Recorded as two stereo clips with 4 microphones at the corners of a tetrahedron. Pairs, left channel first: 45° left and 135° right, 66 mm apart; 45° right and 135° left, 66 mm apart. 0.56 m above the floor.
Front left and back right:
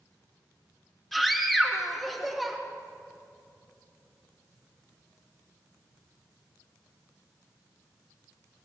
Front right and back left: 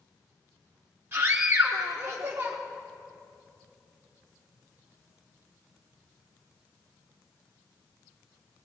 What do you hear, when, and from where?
1.1 s a scream: 130° left, 1.1 m